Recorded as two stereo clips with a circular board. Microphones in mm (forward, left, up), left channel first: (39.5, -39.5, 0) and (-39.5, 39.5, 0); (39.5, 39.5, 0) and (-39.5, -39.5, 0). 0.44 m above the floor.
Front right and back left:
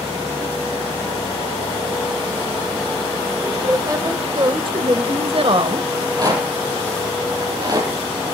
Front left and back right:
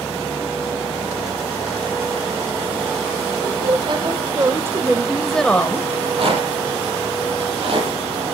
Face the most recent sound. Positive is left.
turn(degrees=-170)